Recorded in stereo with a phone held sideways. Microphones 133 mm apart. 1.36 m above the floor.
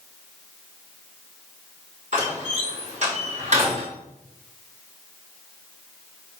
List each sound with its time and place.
2.1 s a door slam: 60° right (ahead or behind), 3.5 m